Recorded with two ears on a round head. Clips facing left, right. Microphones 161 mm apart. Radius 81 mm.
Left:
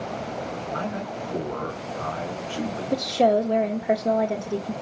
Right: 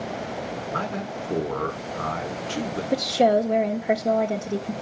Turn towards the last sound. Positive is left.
turn(degrees=-5)  # may be behind; listen again after turning